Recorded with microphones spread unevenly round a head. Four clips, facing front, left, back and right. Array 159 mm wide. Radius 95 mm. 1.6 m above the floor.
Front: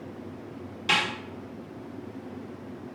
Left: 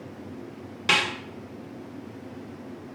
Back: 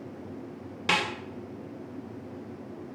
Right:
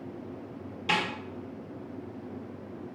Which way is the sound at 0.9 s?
165° left.